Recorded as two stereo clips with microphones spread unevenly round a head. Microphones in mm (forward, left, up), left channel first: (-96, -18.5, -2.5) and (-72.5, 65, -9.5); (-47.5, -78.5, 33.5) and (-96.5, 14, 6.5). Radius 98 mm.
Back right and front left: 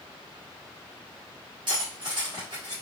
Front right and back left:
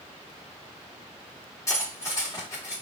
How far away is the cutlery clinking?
About 1.3 m.